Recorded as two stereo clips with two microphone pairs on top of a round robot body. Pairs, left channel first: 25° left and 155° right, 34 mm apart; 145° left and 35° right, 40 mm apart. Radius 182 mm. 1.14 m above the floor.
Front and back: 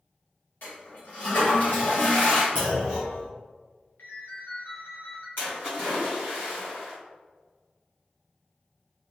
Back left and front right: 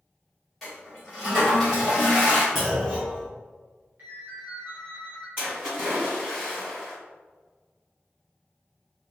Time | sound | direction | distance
0.6 | a toilet flushing | 55° left | 1.5 m
2.5 | a clunk | 60° left | 0.5 m
4.0 | a ringtone | 15° left | 0.6 m
5.4 | a splash | 35° left | 0.9 m